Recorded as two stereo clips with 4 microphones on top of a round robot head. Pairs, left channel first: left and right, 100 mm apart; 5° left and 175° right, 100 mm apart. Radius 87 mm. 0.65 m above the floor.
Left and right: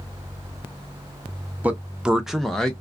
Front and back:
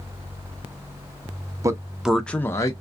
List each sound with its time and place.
1.6 s a man speaking: 150° right, 0.6 m; by 2.8 s 10° left, 0.6 m